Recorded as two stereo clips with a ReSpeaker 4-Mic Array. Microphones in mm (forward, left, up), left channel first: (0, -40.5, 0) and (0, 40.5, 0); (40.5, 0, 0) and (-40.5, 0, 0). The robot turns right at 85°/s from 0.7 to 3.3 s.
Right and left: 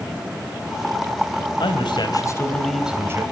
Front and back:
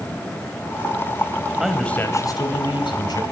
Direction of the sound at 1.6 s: 100° right.